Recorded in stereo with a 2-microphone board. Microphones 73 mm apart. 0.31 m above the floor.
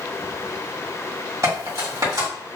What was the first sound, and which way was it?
Cutlery clinking, 50° right (ahead or behind).